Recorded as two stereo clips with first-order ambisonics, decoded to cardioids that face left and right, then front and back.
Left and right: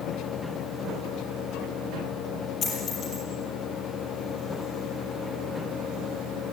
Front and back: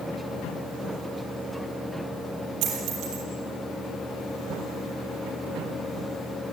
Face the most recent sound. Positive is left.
turn(degrees=150)